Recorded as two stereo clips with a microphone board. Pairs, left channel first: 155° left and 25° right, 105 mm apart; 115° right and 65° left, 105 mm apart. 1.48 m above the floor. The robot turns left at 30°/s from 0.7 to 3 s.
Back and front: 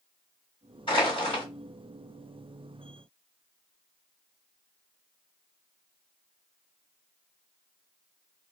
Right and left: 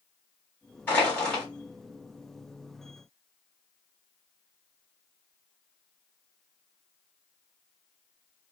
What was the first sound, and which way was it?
Crushing, straight behind.